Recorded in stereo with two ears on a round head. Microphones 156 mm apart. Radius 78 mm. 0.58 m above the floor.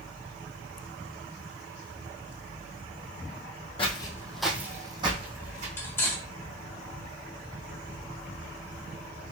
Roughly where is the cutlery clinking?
Centre.